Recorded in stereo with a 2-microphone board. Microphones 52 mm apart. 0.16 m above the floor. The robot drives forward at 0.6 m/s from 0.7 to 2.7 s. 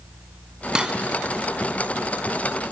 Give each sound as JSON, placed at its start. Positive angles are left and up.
{"t": 0.8, "sound": "cutlery clinking", "side_deg": -20, "distance_m": 0.7}